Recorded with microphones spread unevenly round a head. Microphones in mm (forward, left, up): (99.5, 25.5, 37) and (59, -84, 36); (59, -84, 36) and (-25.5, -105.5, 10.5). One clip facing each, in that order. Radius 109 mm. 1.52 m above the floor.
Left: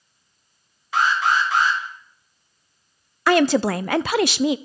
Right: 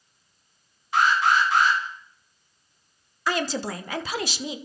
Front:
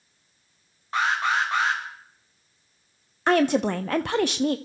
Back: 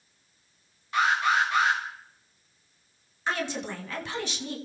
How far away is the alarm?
About 2.5 m.